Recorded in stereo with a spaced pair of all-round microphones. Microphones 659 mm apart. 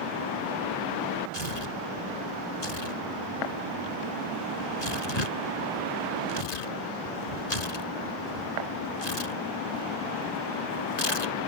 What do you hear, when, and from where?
1.3 s tearing paper: 80° left